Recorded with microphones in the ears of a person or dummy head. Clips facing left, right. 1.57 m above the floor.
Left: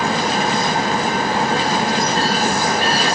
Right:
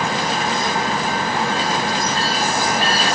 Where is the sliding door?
I don't hear a sliding door.